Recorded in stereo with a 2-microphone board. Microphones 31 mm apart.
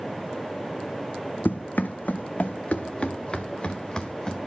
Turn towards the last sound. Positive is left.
turn(degrees=15)  # may be behind; listen again after turning